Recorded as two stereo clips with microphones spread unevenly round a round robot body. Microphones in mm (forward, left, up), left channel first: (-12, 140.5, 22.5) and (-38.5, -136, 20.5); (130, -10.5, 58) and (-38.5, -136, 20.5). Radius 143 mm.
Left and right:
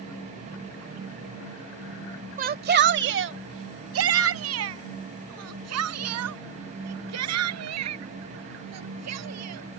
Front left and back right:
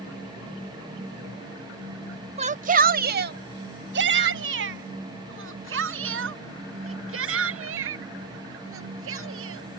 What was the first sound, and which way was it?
A shout, 140° right.